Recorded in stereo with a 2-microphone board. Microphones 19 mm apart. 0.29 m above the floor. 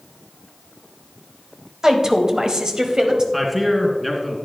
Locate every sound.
1.8 s a woman speaking: 25° right (ahead or behind), 1.1 m; by 3.2 s 35° right (ahead or behind), 1.2 m
3.3 s a man speaking: 10° right (ahead or behind), 2.5 m